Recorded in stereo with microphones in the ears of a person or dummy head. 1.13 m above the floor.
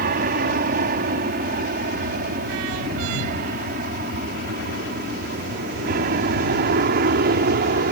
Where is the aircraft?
45° right (ahead or behind).